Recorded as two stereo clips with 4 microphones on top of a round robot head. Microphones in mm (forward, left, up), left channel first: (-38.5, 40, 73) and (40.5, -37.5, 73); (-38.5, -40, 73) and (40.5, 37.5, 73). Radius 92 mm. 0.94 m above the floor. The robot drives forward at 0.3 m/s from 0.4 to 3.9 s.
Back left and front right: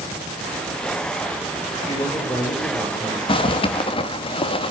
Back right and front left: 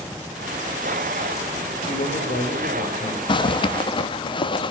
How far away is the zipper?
About 1.4 m.